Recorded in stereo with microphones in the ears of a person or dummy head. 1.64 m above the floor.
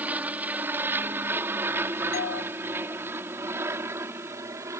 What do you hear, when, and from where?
0.0 s an aircraft: 5° right (ahead or behind); by 4.8 s 15° right (ahead or behind)
2.1 s a doorbell: 55° left (ahead or behind)